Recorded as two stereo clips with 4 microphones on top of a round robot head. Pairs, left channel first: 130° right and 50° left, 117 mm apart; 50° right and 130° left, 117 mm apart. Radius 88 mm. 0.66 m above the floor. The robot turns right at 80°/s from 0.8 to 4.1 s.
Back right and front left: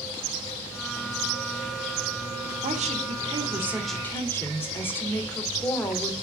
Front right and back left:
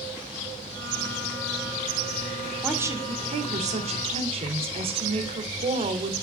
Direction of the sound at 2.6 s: 45° left.